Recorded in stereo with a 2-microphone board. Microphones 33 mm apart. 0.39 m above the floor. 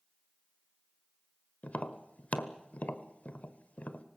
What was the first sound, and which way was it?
Tapping, 45° left (ahead or behind).